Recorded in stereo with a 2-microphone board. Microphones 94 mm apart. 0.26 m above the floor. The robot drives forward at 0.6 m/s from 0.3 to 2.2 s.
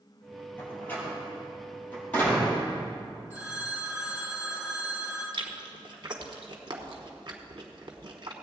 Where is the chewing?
55° right (ahead or behind), 1.3 m.